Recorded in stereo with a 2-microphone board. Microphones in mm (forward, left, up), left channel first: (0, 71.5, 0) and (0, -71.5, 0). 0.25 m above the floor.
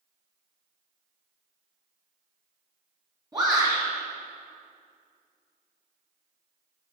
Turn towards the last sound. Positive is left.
turn(degrees=-30)  # may be behind; listen again after turning